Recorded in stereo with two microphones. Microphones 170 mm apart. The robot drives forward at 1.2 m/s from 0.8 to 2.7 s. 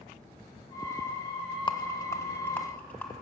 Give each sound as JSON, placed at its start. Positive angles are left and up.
{"t": 1.7, "sound": "a rattle", "side_deg": 30, "distance_m": 0.5}